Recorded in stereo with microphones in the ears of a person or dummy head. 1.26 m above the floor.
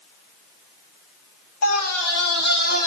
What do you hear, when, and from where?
1.6 s a scream: 90° left, 2 m; by 2.9 s 45° left (ahead or behind), 1.6 m